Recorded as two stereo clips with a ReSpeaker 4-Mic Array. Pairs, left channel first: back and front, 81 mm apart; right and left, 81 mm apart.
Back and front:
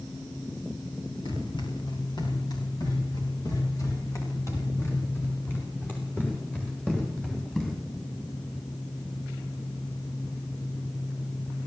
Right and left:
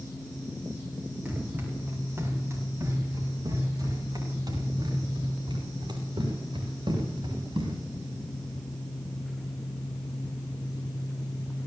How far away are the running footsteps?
About 9 m.